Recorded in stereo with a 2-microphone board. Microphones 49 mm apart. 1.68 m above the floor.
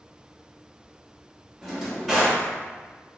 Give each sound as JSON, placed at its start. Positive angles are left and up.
{"t": 1.6, "sound": "a drawer", "side_deg": -5, "distance_m": 1.1}